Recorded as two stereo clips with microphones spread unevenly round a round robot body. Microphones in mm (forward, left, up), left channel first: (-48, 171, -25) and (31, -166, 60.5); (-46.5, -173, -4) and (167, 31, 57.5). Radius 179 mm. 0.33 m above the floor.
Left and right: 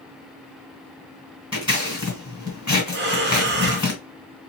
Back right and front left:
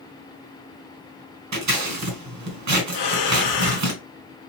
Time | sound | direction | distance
1.5 | scissors | 20° left | 2 m
2.9 | breathing | 140° right | 0.7 m